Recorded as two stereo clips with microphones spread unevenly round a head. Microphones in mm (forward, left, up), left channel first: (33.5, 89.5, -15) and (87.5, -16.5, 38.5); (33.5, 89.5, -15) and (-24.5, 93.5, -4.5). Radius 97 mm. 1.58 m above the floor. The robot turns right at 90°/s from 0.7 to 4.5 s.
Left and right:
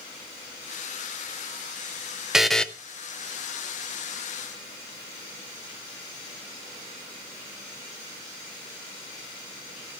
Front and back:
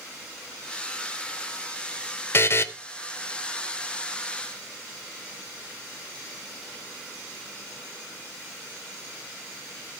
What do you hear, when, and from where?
2.3 s a buzzer: 30° right, 0.8 m; by 2.7 s straight ahead, 0.8 m